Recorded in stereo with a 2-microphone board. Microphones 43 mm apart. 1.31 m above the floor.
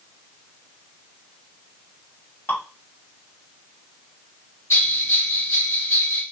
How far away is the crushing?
I don't hear crushing.